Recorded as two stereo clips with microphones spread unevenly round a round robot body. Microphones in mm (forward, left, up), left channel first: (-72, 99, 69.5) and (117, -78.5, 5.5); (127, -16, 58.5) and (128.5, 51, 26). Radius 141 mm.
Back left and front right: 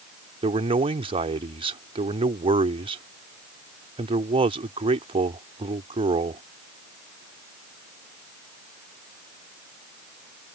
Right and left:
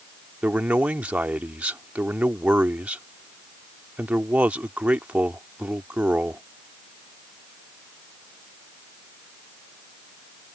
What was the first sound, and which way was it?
A man speaking, 25° left.